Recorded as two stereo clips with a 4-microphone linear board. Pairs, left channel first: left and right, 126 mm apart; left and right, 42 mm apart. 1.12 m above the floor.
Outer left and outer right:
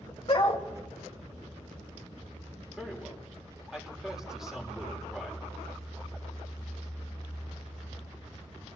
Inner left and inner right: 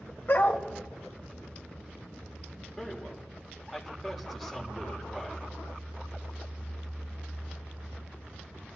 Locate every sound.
0.3 s a dog barking: 45° left (ahead or behind), 1.8 m
2.8 s a man speaking: 5° right (ahead or behind), 3.5 m